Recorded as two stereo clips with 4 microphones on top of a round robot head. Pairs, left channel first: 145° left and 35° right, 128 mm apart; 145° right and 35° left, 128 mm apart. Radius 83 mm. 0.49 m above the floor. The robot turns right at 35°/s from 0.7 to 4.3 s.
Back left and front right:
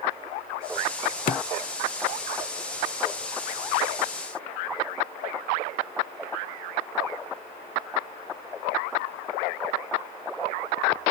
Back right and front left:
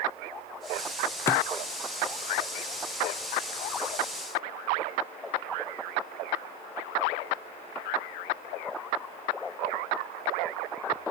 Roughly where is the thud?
Behind left.